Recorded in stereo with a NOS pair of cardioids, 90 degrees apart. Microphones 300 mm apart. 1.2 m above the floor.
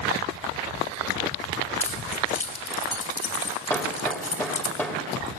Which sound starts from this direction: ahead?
Hammering, at 3.7 s.